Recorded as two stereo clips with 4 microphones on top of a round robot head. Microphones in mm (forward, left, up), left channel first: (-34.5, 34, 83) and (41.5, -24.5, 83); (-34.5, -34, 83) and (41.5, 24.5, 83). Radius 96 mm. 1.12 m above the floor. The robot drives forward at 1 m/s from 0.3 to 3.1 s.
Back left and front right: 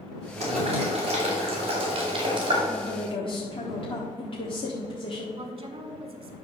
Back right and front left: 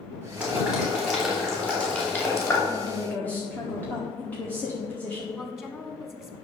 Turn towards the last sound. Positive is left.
turn(degrees=-75)